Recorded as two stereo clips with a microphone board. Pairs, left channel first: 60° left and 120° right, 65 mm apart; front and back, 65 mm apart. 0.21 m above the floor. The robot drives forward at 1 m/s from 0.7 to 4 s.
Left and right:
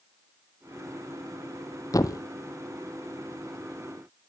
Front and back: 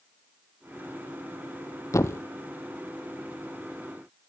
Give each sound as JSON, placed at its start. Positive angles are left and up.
{"t": 1.9, "sound": "a thud", "azimuth_deg": 30, "distance_m": 1.0}